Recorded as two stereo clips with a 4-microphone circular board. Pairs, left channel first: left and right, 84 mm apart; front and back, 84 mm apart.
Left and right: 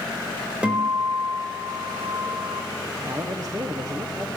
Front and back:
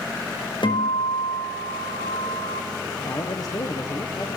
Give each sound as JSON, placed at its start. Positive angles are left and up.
{"t": 0.6, "sound": "a guitar", "azimuth_deg": -10, "distance_m": 4.5}
{"t": 3.0, "sound": "a man speaking", "azimuth_deg": -45, "distance_m": 1.4}